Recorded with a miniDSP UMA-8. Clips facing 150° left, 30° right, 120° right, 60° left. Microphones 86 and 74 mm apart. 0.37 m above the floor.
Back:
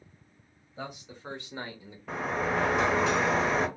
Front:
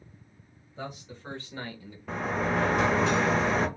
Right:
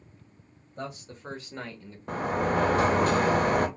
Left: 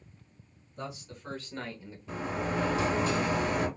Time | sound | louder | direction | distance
0.8 | a man speaking | front 1 dB, right 3 dB | 130° right | 1.2 m
2.1 | a sliding door | front 1 dB, right 6 dB | 120° right | 0.5 m